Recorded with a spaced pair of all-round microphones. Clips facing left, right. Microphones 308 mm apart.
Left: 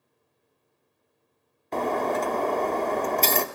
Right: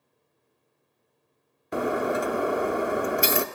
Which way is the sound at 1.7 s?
10° right (ahead or behind).